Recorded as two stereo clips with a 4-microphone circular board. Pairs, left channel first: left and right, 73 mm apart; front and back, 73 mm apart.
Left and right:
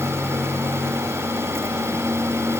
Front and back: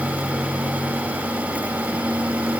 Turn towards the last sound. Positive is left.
No sound to turn to.